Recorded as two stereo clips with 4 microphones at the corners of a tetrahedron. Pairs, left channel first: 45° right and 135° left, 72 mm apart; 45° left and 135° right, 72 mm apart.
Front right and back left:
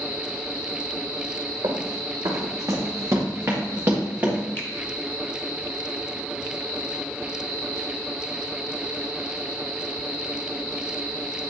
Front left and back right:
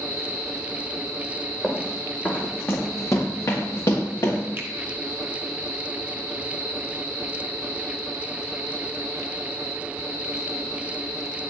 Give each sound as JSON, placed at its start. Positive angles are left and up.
{"t": 1.6, "sound": "running footsteps", "azimuth_deg": 130, "distance_m": 1.7}
{"t": 4.6, "sound": "a finger snap", "azimuth_deg": -90, "distance_m": 1.0}